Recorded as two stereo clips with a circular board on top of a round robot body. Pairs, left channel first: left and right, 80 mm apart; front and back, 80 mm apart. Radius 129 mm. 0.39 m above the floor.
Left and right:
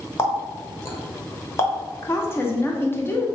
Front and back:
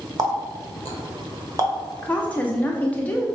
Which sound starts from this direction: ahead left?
A woman speaking, at 2.0 s.